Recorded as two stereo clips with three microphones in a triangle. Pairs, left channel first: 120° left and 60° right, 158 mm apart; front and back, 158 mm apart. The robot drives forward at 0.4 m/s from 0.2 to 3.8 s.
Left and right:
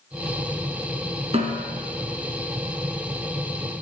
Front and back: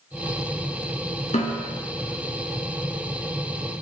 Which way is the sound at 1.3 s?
25° right.